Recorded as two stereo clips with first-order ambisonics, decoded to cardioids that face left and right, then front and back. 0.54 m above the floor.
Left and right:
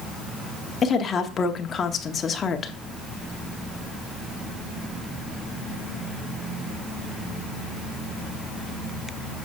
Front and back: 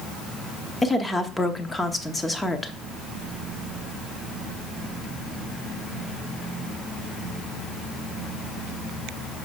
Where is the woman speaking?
65° left, 0.8 m.